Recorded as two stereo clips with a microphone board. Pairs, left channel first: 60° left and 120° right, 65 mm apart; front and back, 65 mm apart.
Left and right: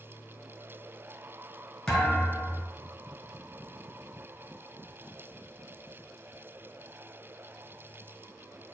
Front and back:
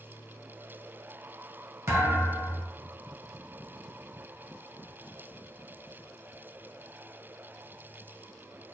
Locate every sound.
1.9 s a thud: 145° left, 1.4 m